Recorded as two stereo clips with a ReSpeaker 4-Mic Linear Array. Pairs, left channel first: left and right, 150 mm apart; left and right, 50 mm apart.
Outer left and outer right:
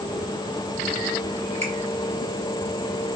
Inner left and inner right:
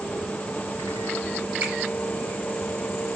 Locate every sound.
1.6 s a finger snap: 45° right (ahead or behind), 2 m